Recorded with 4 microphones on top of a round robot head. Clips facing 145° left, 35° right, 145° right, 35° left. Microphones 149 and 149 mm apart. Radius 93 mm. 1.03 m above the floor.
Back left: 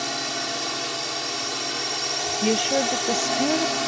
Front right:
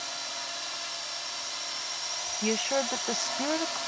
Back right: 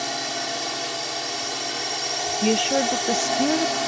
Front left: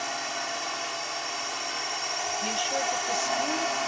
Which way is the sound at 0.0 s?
160° left.